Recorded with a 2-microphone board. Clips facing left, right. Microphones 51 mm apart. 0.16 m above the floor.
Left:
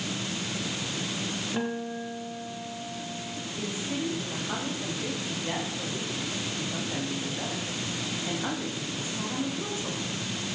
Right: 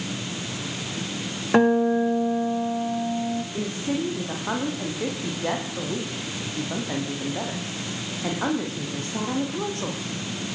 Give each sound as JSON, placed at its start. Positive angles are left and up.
{"t": 1.5, "sound": "a guitar", "side_deg": -65, "distance_m": 4.0}
{"t": 3.5, "sound": "a woman speaking", "side_deg": -55, "distance_m": 9.5}